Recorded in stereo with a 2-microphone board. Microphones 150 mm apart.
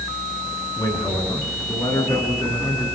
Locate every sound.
0.8 s a man speaking: 25° left (ahead or behind), 10 m